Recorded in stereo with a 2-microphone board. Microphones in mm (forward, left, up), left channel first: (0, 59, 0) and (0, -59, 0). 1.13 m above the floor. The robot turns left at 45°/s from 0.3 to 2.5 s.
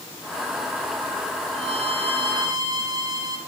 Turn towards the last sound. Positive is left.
turn(degrees=-140)